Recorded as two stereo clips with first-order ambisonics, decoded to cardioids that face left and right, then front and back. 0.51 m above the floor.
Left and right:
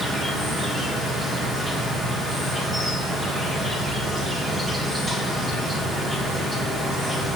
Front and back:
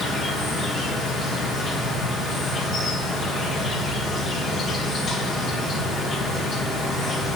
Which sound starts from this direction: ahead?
An insect, at 0.0 s.